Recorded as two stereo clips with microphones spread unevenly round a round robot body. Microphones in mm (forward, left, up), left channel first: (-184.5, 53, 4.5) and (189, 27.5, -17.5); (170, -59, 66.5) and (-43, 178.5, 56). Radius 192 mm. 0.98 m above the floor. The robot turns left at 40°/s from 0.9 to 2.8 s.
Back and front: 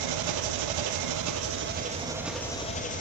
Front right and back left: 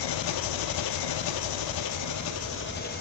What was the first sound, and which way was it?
An engine running, 35° right.